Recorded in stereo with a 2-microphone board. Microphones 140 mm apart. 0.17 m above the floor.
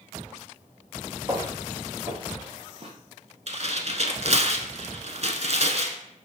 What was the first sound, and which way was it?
Footsteps, 30° right (ahead or behind).